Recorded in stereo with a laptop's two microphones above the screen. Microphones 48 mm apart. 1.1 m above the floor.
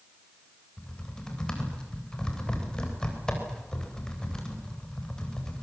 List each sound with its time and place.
0.8 s typing on a keyboard: 15° left (ahead or behind), 3.5 m